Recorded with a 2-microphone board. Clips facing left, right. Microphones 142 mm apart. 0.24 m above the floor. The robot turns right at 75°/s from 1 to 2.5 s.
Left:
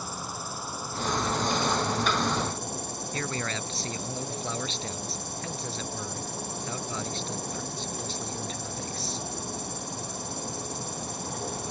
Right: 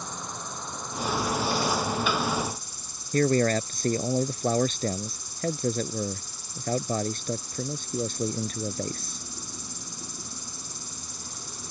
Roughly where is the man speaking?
Right.